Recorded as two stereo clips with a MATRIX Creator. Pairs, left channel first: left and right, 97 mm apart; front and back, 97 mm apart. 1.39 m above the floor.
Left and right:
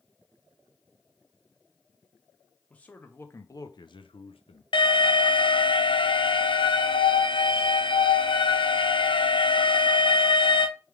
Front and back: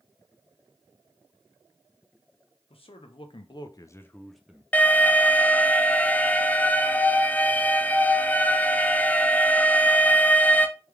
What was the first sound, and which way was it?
A man speaking, 10° left.